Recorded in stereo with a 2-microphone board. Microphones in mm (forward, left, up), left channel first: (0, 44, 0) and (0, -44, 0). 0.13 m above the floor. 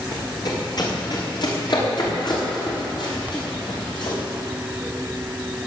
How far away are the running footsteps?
About 7.5 m.